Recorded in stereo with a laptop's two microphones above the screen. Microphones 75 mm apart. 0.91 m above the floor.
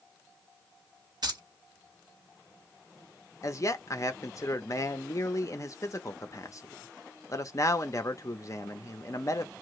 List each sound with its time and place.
1.2 s keys jangling: 65° right (ahead or behind), 1.1 m
3.4 s a man speaking: 45° left (ahead or behind), 0.6 m